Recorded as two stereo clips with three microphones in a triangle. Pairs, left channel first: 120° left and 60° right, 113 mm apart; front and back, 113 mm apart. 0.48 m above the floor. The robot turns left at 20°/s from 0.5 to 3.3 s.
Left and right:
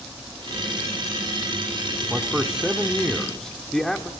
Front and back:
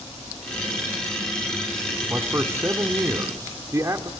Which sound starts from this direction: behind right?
A man speaking, at 2.1 s.